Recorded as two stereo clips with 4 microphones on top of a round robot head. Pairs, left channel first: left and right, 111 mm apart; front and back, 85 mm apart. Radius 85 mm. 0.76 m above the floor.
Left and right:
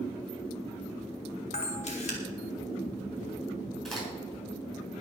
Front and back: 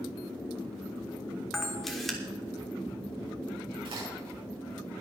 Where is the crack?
175° left, 7.5 m.